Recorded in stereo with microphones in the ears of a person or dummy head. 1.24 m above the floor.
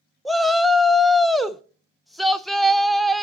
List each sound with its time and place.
0.2 s a shout: 5° right (ahead or behind), 0.5 m